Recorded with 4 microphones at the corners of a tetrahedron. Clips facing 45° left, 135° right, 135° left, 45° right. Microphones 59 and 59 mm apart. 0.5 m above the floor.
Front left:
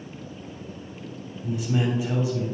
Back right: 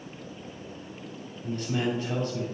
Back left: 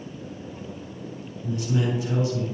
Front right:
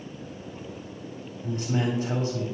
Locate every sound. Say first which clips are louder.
1.4 s a man speaking: front left 3 dB, back left 1 dB; 30° right, 1.4 m